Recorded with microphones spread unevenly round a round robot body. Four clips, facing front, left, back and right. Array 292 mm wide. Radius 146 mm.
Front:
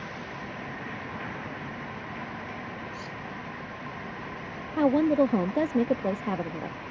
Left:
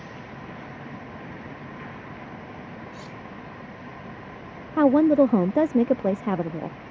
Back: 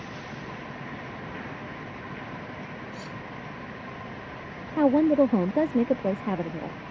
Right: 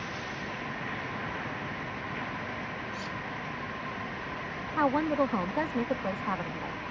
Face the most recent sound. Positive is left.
turn(degrees=110)